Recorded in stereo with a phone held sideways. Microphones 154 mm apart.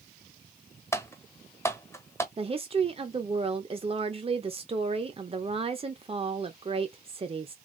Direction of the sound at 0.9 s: 15° left (ahead or behind).